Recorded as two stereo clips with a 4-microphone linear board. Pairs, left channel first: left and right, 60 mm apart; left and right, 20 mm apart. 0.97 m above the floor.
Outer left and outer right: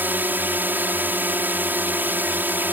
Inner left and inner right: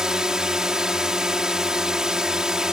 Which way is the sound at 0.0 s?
35° right (ahead or behind).